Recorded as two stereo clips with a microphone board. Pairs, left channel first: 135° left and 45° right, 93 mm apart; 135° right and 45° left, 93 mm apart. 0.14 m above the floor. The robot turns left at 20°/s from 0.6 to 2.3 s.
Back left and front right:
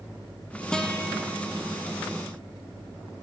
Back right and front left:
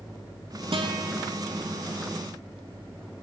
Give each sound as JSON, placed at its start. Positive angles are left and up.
{"t": 0.7, "sound": "a guitar", "azimuth_deg": 55, "distance_m": 1.0}